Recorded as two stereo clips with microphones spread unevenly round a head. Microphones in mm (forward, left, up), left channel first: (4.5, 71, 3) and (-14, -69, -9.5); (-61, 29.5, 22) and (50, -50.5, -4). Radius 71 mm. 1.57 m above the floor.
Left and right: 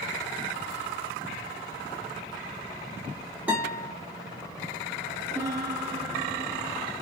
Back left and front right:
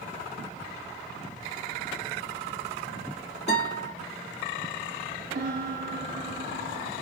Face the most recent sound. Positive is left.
turn(degrees=-30)